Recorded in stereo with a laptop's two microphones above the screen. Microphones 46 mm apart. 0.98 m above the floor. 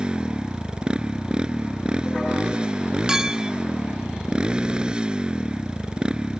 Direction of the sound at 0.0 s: 20° right (ahead or behind).